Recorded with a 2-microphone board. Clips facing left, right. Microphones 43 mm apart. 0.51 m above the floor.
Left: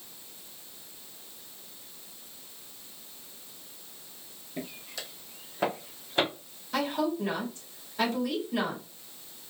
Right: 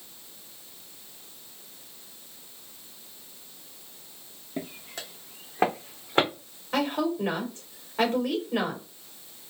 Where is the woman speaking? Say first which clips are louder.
Right 2 dB; 40° right (ahead or behind), 2.5 m.